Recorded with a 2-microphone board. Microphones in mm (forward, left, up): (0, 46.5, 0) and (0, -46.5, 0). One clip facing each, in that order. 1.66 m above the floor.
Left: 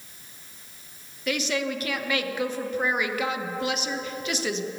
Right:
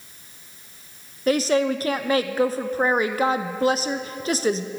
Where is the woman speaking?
35° right (ahead or behind), 0.7 m.